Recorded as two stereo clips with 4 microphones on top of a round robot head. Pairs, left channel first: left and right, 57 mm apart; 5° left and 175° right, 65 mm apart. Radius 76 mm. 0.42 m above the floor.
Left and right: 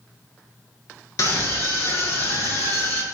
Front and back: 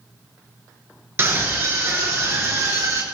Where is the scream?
130° left, 8.5 m; by 3.0 s 135° left, 7.5 m.